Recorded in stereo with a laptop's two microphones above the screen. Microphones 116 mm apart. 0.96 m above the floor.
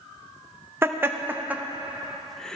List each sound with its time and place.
0.8 s laughter: 20° right (ahead or behind), 0.9 m; by 2.6 s 10° left (ahead or behind), 0.6 m